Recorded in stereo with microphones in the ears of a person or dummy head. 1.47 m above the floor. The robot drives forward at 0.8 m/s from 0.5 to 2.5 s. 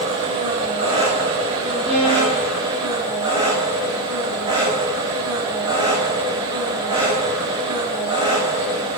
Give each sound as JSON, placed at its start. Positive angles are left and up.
{"t": 0.0, "sound": "an engine running", "side_deg": -30, "distance_m": 6.0}
{"t": 1.9, "sound": "a violin", "side_deg": -30, "distance_m": 8.5}